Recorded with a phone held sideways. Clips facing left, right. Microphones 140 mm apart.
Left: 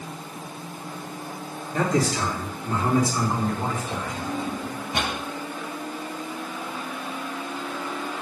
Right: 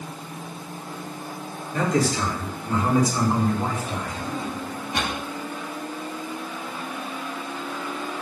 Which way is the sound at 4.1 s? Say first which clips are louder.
Left 1 dB; 20° left (ahead or behind).